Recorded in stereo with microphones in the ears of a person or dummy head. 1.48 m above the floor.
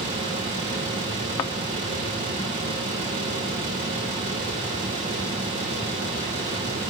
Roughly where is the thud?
Centre.